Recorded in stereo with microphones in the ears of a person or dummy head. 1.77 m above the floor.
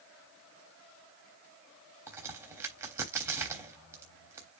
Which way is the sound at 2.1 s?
15° right (ahead or behind).